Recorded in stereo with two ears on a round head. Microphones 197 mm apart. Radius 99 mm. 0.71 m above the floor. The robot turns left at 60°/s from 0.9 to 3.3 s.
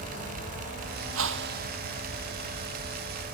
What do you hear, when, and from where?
1.1 s a whoosh: 110° right; by 1.7 s 145° right